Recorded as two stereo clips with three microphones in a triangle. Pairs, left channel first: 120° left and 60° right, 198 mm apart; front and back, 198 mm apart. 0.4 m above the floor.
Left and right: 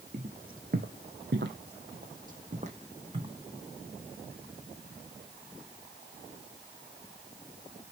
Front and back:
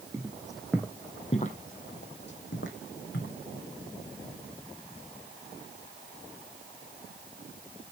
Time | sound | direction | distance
0.1 | footsteps | 105° right | 1.0 m